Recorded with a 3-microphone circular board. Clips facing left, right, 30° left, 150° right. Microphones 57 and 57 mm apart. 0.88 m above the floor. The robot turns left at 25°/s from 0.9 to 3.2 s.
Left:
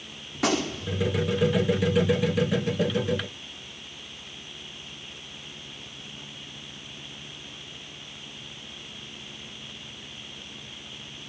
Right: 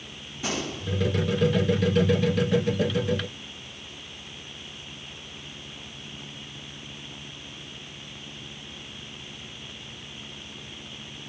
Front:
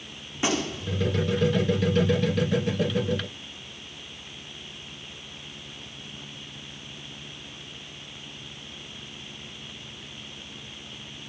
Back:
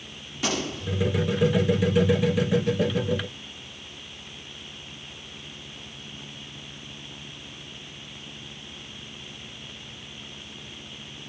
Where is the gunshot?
95° left, 1.5 m.